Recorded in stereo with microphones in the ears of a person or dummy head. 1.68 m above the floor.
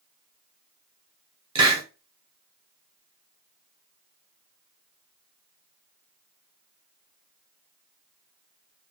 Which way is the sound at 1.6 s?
20° right (ahead or behind).